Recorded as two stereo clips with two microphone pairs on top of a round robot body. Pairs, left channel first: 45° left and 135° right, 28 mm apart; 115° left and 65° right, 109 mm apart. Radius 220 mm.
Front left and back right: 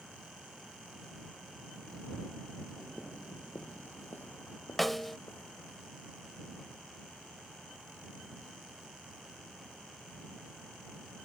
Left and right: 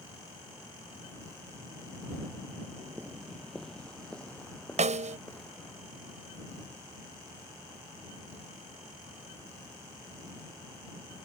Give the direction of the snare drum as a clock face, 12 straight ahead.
2 o'clock.